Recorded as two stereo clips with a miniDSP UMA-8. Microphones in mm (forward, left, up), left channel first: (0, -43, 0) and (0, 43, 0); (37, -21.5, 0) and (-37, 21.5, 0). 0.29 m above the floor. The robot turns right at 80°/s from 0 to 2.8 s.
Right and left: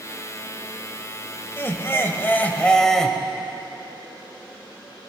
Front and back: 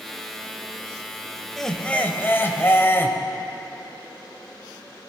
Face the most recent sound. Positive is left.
turn(degrees=-15)